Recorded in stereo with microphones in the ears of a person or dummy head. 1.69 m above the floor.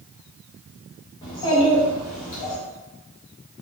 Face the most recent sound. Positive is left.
turn(degrees=40)  # may be behind; listen again after turning